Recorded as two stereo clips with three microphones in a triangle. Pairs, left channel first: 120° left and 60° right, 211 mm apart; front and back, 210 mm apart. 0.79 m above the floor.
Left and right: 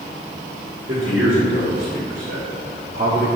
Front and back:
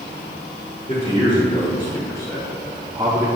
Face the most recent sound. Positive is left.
turn(degrees=-115)